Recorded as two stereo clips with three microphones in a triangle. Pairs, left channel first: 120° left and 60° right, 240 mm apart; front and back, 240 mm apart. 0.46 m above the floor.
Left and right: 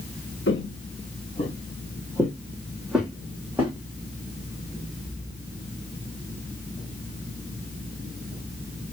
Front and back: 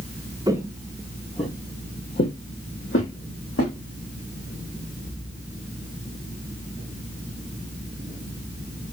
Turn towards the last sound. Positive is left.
turn(degrees=20)